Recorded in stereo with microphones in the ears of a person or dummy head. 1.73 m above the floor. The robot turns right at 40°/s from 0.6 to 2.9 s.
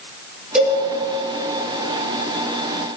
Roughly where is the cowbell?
Centre.